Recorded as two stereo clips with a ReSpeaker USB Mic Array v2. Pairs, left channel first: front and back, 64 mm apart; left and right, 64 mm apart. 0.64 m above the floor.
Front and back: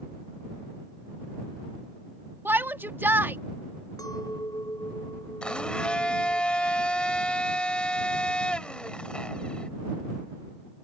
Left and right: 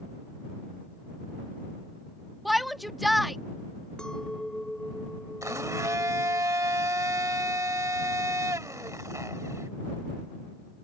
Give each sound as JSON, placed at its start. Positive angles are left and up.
{"t": 2.5, "sound": "a shout", "azimuth_deg": 180}
{"t": 4.0, "sound": "a clink", "azimuth_deg": 15}
{"t": 5.4, "sound": "a blender", "azimuth_deg": -70}